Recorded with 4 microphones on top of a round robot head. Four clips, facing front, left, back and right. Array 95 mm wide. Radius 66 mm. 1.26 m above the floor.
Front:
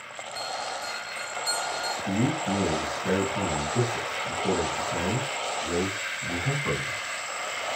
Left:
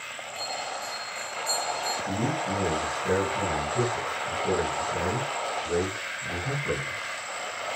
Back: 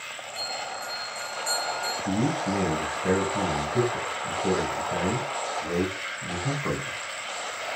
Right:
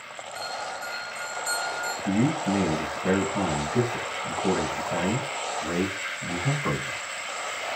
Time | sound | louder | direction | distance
0.3 | a bell | right 1 dB, front 2 dB | 130° right | 9 m
2.0 | a man speaking | right 7 dB, back 1 dB | 120° right | 8 m